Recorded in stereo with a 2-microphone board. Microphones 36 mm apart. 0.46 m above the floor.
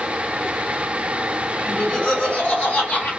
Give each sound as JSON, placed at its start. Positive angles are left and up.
{"t": 1.7, "sound": "laughter", "side_deg": 25, "distance_m": 0.9}